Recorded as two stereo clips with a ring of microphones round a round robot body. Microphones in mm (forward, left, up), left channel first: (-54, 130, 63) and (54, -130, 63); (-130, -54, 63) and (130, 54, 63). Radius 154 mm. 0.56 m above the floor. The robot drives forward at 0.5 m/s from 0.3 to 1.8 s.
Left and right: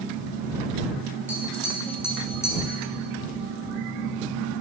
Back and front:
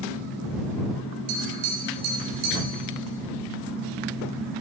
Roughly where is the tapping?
Ahead left.